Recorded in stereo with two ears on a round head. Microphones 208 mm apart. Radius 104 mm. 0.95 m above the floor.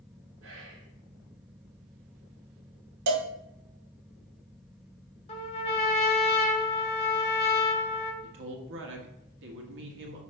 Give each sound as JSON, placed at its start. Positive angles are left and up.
{"t": 0.4, "sound": "whispering", "side_deg": -55, "distance_m": 2.5}
{"t": 3.1, "sound": "a cowbell", "side_deg": -85, "distance_m": 0.9}
{"t": 5.3, "sound": "a trumpet", "side_deg": 25, "distance_m": 1.2}
{"t": 8.2, "sound": "a man speaking", "side_deg": -55, "distance_m": 1.6}